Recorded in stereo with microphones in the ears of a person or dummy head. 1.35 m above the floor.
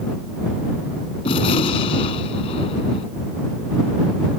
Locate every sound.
1.2 s a gunshot: 30° left (ahead or behind)